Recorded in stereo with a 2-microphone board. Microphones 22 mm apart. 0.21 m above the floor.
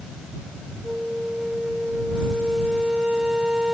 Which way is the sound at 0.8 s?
35° right (ahead or behind).